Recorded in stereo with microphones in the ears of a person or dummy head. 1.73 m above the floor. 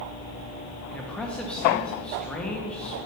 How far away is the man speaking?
About 1.8 m.